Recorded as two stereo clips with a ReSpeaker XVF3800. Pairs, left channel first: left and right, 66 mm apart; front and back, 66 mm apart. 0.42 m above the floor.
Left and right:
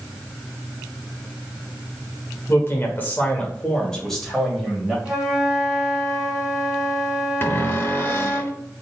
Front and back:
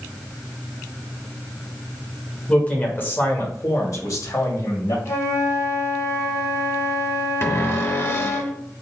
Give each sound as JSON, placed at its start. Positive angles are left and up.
{"t": 2.5, "sound": "a man speaking", "azimuth_deg": 60, "distance_m": 1.2}
{"t": 5.0, "sound": "a flute", "azimuth_deg": -10, "distance_m": 2.0}
{"t": 7.4, "sound": "a cupboard door", "azimuth_deg": 40, "distance_m": 0.6}